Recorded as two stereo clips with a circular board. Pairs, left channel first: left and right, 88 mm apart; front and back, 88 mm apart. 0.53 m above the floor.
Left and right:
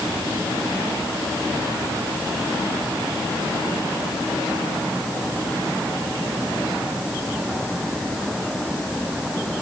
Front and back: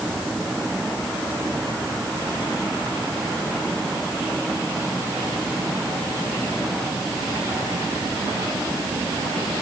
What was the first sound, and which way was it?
Only background noise.